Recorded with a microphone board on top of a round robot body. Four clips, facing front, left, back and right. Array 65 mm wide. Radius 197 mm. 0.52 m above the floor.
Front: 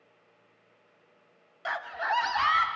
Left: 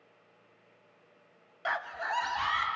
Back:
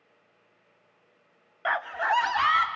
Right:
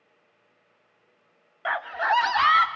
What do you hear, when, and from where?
1.6 s a scream: 145° right, 0.8 m; by 2.7 s 100° right, 1.5 m